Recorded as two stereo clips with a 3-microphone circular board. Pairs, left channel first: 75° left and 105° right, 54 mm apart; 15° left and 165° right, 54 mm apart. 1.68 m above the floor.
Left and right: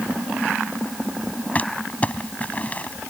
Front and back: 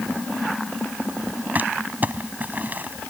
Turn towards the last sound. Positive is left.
turn(degrees=140)